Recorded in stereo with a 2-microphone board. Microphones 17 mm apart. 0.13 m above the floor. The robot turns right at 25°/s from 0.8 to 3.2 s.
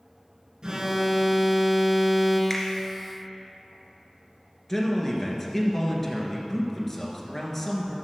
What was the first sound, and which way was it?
An alarm, 90° right.